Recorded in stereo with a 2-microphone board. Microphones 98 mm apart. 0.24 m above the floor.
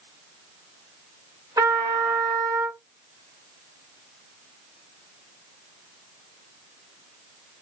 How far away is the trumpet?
About 1.3 m.